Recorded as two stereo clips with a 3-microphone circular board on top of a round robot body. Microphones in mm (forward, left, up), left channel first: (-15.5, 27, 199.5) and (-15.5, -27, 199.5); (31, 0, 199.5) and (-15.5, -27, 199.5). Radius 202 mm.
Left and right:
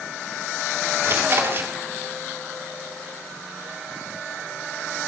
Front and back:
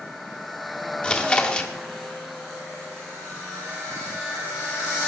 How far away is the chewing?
About 1.9 m.